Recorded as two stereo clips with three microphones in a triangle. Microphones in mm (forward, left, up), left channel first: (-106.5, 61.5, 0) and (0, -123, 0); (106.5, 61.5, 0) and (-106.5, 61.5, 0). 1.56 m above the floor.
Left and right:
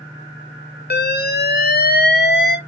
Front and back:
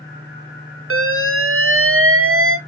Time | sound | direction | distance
0.9 | an alarm | 165° left | 0.6 m